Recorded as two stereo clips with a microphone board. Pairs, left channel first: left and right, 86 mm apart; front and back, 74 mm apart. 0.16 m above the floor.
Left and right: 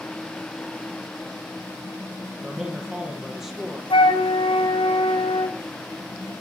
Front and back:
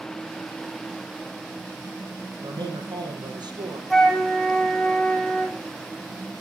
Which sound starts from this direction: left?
A flute, at 3.9 s.